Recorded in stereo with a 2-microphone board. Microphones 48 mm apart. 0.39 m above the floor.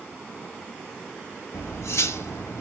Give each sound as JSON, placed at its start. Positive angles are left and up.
{"t": 1.5, "sound": "cutlery clinking", "side_deg": 70, "distance_m": 1.1}